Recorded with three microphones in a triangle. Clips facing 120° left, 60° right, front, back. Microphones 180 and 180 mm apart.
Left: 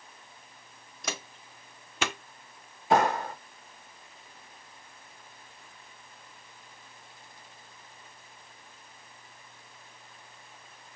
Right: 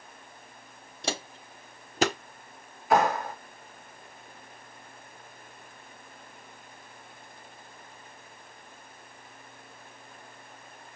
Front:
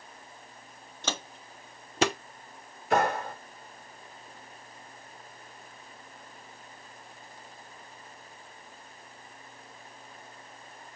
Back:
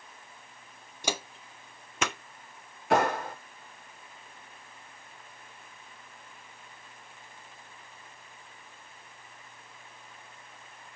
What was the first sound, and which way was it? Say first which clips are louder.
Footsteps: right 5 dB, back 2 dB; 105° right.